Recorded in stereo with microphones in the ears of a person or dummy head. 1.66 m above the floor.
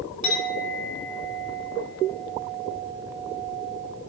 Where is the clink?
45° left (ahead or behind), 5 m.